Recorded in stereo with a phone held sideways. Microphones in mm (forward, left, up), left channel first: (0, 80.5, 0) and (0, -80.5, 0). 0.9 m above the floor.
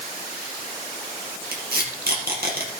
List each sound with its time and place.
1.5 s tape being pulled: 75° right (ahead or behind), 4 m